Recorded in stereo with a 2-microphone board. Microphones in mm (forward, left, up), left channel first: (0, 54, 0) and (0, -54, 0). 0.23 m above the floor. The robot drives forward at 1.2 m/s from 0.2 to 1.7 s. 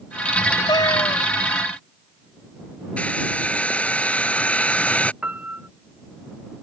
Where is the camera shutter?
I don't hear a camera shutter.